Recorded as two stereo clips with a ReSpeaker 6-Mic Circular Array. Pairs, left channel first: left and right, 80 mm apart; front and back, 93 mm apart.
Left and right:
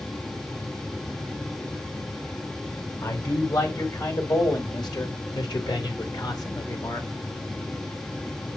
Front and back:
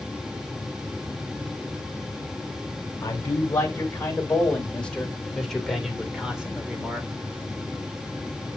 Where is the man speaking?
60° left, 3.5 m; by 7.1 s 115° left, 2.5 m.